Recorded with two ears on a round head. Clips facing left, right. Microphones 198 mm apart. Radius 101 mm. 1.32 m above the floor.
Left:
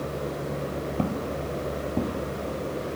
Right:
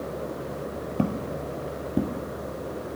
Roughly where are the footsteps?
Centre.